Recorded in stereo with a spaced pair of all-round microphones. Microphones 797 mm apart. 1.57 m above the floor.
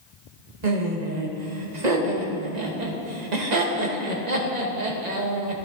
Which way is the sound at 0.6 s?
60° right (ahead or behind).